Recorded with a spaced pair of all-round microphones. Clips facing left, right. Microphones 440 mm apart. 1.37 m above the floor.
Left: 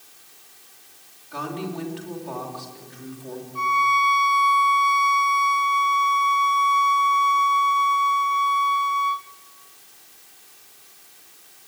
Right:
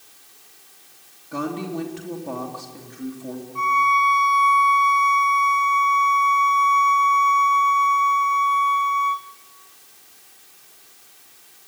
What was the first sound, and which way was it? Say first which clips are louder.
A woman speaking: right 4 dB; 60° right (ahead or behind).